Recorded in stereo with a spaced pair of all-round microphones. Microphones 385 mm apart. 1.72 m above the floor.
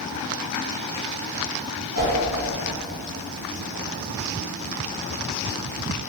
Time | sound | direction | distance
1.9 | a whoosh | 35° right (ahead or behind) | 1.4 m